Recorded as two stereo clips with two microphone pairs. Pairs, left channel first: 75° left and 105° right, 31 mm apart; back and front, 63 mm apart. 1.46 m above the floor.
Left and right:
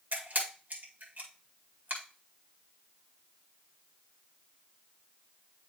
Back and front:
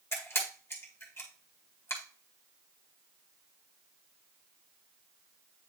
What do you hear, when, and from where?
0.1 s a camera shutter: 130° right, 2.0 m